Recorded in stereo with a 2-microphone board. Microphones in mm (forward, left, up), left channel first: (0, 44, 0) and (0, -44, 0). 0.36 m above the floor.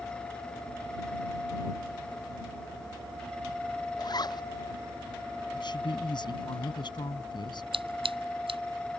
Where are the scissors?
80° right.